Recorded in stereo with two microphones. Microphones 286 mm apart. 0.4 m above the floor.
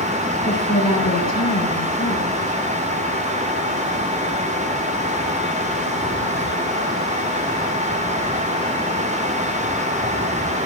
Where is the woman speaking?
65° left (ahead or behind), 6.5 m.